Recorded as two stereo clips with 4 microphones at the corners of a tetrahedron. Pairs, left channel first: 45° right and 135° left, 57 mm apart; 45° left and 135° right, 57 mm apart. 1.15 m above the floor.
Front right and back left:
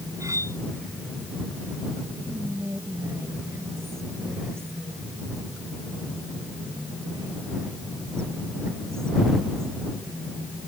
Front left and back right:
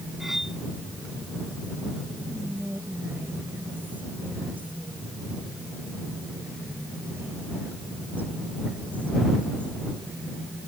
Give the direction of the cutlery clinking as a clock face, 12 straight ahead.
7 o'clock.